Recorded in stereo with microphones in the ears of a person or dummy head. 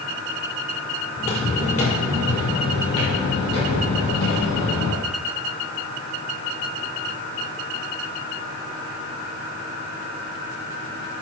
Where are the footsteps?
35° left (ahead or behind), 1.9 m; by 5.0 s 65° left (ahead or behind), 4.5 m.